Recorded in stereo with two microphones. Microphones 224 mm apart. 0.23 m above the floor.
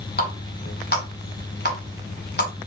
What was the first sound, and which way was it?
A running tap, 45° left (ahead or behind).